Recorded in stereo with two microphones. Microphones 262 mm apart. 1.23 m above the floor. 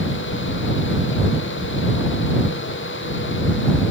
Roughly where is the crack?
I don't hear a crack.